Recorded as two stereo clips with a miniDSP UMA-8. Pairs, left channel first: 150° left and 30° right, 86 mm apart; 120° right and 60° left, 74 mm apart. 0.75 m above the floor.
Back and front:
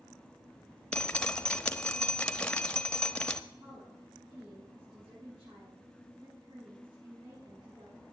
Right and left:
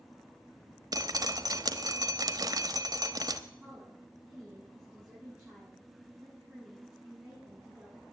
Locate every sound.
0.9 s dripping: 75° left, 0.9 m
3.6 s a woman speaking: 15° right, 8 m